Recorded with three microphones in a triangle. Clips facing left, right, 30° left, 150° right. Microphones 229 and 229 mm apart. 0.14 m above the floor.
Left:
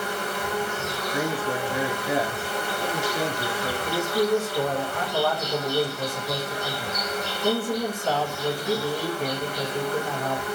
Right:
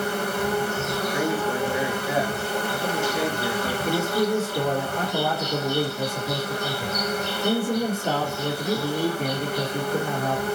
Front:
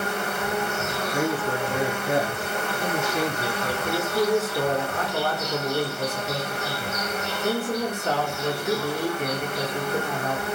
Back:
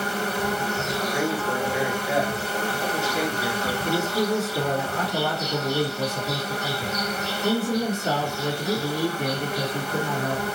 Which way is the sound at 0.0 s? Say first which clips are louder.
Right 5 dB, back 1 dB; 105° right.